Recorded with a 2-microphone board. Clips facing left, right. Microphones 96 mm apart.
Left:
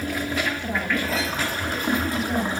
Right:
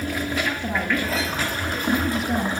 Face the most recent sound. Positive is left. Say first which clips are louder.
# right 1 dB
turn(degrees=-10)  # may be behind; listen again after turning